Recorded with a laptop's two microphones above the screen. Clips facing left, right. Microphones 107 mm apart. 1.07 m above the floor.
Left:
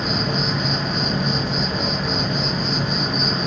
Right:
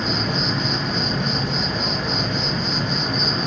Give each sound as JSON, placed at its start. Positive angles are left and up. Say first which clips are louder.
{"t": 0.0, "sound": "an insect", "louder": "left 1 dB", "side_deg": 10, "distance_m": 1.0}